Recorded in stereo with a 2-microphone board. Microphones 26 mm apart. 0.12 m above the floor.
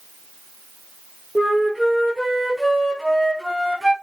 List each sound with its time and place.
1.4 s a flute: 20° left (ahead or behind), 5 m